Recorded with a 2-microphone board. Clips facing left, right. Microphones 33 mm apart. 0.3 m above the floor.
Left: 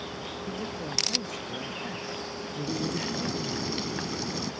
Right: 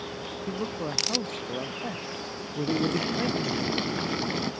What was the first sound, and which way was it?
A man speaking, 45° right (ahead or behind).